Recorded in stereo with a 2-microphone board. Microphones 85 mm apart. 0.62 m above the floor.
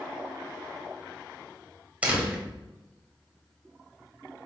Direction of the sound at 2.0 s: 15° right (ahead or behind).